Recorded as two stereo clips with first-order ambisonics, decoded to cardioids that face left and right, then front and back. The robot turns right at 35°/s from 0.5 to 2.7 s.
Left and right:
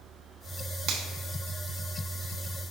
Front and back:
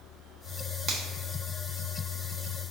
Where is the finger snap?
125° right, 0.7 m; by 1.0 s 120° right, 0.7 m.